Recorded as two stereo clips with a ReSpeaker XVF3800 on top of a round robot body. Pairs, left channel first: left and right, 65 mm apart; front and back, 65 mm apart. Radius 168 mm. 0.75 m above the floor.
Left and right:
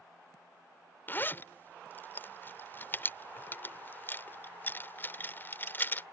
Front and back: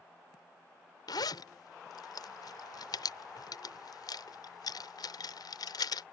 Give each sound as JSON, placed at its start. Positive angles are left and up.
{"t": 1.1, "sound": "a zipper", "azimuth_deg": 30}